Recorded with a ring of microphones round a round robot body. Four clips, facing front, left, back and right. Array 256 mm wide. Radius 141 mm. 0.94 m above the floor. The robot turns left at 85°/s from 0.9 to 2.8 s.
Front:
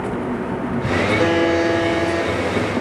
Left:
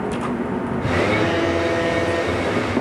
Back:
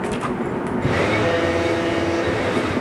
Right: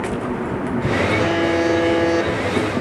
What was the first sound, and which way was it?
A buzzer, 5° right.